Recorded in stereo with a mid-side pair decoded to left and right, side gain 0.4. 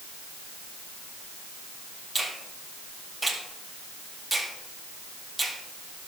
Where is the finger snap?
5° right, 3 m.